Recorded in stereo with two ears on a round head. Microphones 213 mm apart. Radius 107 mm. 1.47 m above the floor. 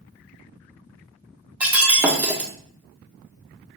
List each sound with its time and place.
1.6 s breaking glass: 5° right (ahead or behind), 1.1 m